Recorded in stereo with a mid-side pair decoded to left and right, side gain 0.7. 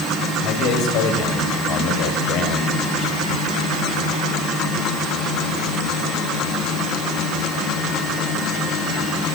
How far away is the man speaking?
About 6 m.